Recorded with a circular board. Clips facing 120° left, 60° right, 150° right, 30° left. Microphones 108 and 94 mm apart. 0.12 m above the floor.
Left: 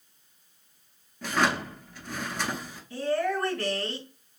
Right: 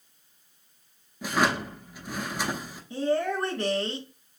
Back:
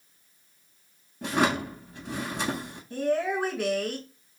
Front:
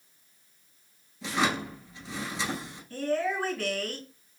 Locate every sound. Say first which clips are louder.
1.2 s a drawer: right 1 dB, back 3 dB; 135° right, 1.2 m
2.9 s a woman speaking: right 1 dB, back 2 dB; 100° right, 1.6 m